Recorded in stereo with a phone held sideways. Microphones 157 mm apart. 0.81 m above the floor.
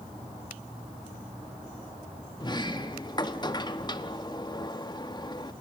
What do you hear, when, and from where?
2.4 s a sliding door: 30° left (ahead or behind), 1.1 m